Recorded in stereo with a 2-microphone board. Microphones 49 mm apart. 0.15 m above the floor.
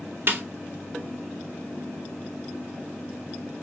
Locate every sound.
0.3 s a snare drum: 40° right (ahead or behind), 1.2 m